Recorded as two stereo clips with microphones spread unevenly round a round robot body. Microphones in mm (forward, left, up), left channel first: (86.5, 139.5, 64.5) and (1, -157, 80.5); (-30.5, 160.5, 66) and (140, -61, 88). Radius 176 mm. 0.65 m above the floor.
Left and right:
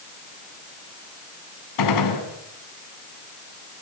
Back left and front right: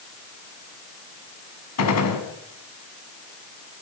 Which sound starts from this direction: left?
A gunshot, at 1.8 s.